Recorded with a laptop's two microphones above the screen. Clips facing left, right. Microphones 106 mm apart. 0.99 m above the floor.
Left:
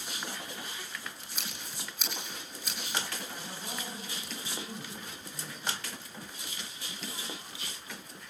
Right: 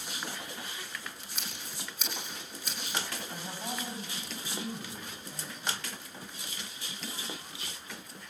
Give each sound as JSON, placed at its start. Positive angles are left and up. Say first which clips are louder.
{"t": 1.4, "sound": "scissors", "louder": "even", "side_deg": 0, "distance_m": 4.5}
{"t": 3.3, "sound": "a man speaking", "louder": "right 3 dB", "side_deg": -55, "distance_m": 8.0}